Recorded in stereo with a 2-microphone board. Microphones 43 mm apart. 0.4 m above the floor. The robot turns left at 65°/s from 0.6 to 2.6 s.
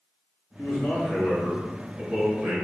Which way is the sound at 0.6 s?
75° left.